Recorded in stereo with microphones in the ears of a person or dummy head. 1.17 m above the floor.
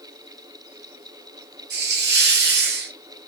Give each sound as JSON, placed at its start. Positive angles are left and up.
{"t": 1.7, "sound": "a hiss", "side_deg": -45, "distance_m": 0.6}